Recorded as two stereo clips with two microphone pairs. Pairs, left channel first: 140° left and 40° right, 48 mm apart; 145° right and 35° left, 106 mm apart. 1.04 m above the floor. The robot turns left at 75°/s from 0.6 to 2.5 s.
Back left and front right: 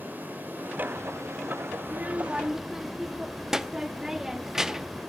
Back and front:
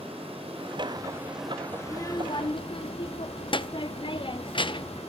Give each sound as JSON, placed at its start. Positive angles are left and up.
{"t": 0.0, "sound": "running water", "azimuth_deg": 5, "distance_m": 3.0}
{"t": 1.8, "sound": "a child speaking", "azimuth_deg": -75, "distance_m": 0.6}